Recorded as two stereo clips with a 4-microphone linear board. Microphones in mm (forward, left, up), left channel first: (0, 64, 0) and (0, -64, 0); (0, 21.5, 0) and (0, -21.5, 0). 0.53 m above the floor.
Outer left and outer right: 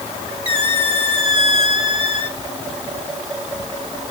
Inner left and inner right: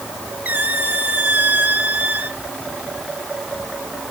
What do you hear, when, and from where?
0.5 s a squeak: 40° right (ahead or behind), 1.4 m